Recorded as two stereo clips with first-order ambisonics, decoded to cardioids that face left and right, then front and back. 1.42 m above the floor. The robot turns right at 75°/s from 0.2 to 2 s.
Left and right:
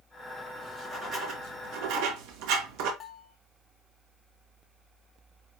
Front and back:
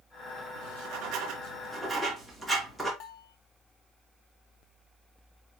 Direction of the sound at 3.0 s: 25° left.